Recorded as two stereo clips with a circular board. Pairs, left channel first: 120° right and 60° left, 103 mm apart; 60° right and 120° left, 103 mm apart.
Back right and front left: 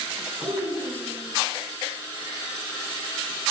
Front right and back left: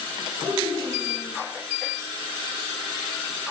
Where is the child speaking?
65° left, 3 m.